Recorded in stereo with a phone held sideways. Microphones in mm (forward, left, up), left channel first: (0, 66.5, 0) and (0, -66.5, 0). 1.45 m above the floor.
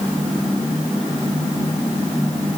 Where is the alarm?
No alarm in this recording.